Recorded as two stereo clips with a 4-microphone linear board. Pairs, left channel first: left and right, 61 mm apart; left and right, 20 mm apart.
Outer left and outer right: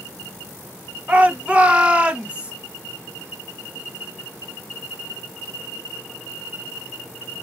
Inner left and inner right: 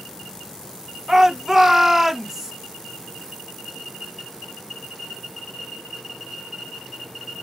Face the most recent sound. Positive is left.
turn(degrees=-20)  # may be behind; listen again after turning